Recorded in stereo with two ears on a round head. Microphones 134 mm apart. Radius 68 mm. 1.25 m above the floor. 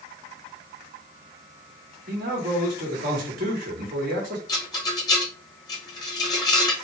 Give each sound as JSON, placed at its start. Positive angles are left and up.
{"t": 2.1, "sound": "a man speaking", "side_deg": -60, "distance_m": 1.9}
{"t": 4.5, "sound": "a rattle", "side_deg": 25, "distance_m": 1.4}